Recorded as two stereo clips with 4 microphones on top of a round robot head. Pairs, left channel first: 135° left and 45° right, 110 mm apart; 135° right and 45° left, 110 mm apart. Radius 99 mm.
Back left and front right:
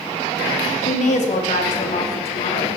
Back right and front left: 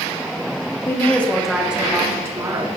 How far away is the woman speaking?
About 2.5 m.